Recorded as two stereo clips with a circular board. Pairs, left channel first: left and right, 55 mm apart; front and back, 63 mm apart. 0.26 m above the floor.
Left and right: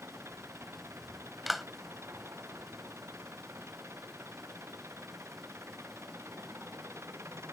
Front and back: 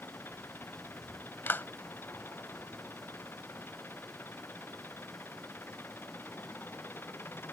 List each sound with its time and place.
0.0 s an engine running: 55° right
1.5 s a clap: 5° right